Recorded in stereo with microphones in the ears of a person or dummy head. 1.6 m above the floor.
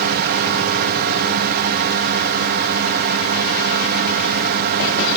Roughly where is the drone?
Right.